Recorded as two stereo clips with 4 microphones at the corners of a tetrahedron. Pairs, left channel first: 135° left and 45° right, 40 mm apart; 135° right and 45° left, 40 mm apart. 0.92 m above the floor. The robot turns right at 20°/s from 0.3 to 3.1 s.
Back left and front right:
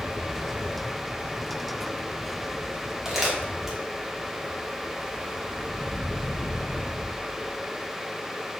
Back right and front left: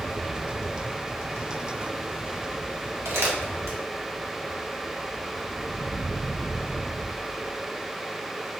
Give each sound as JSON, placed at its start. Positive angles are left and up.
{"t": 3.0, "sound": "crumpling", "azimuth_deg": 35, "distance_m": 1.0}